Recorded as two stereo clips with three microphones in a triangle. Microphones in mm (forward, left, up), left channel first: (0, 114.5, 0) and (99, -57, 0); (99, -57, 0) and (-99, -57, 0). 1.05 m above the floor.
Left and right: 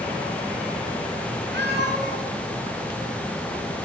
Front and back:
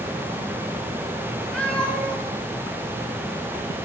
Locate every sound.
1.5 s a cat meowing: 85° right, 6.5 m